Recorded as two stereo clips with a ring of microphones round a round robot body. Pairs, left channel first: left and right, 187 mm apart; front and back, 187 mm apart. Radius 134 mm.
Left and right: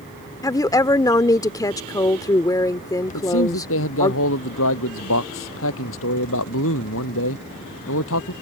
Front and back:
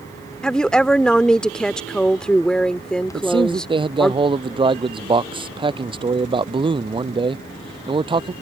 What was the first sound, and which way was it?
A woman speaking, 80° left.